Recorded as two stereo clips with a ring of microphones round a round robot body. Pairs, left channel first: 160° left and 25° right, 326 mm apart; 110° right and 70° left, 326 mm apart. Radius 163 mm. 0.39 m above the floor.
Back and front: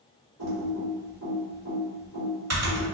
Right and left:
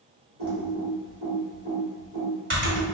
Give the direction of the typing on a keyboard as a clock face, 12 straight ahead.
11 o'clock.